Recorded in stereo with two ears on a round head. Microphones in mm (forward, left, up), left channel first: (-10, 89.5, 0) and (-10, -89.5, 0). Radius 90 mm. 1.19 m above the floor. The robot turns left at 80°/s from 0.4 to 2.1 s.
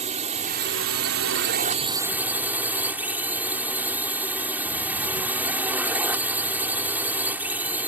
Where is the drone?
35° right; by 7.9 s 170° right.